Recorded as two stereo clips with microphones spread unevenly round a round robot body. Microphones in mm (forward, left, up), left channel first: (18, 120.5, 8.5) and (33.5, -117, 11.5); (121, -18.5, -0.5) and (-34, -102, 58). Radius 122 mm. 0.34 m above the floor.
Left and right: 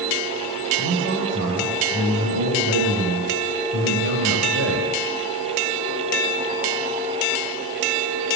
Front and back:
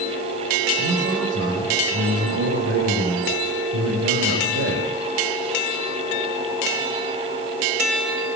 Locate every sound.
0.8 s a man speaking: 125° right, 9 m